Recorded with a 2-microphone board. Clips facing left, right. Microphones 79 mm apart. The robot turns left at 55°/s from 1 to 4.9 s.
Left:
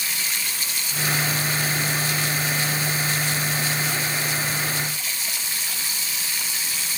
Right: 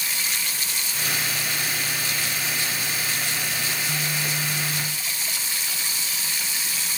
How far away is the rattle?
I don't hear a rattle.